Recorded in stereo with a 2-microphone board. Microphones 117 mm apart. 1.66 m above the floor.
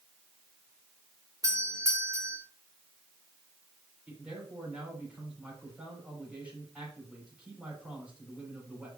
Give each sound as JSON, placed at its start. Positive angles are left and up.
{"t": 1.4, "sound": "a doorbell", "side_deg": -30, "distance_m": 2.0}
{"t": 4.1, "sound": "a man speaking", "side_deg": -10, "distance_m": 6.0}